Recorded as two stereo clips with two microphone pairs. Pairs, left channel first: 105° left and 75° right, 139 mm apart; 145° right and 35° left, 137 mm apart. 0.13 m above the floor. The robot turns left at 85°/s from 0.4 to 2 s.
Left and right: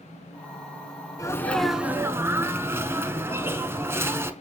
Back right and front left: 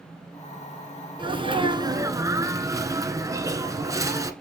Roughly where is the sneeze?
Ahead left.